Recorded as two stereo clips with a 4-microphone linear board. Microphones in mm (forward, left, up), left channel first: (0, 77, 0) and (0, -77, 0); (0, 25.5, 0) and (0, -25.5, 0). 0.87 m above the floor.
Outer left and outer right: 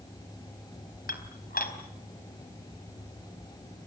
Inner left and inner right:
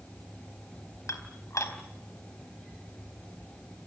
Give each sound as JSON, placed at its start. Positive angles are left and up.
{"t": 1.1, "sound": "dishes clattering", "side_deg": 70, "distance_m": 3.5}